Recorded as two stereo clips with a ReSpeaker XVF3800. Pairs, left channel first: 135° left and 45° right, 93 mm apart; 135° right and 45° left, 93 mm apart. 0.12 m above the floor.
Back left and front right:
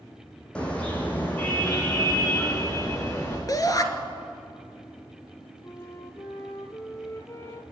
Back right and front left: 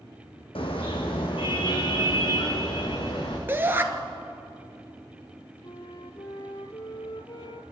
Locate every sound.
0.6 s a car horn: 145° right, 3 m; by 3.4 s 165° right, 5.5 m
3.5 s a shout: 105° left, 1.7 m
5.6 s a flute: 165° right, 1.3 m